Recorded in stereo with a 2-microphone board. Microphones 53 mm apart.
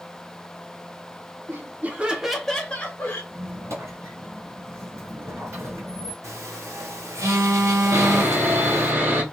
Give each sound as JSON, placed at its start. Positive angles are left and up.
{"t": 1.5, "sound": "laughter", "side_deg": -45, "distance_m": 0.8}
{"t": 3.3, "sound": "a squeak", "side_deg": -60, "distance_m": 1.6}
{"t": 6.2, "sound": "a phone buzzing", "side_deg": -75, "distance_m": 1.1}
{"t": 7.9, "sound": "sawing", "side_deg": -40, "distance_m": 1.3}